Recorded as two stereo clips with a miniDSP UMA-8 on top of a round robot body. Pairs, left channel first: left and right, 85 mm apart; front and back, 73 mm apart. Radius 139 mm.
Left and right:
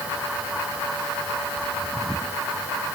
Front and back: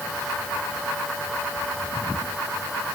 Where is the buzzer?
I don't hear a buzzer.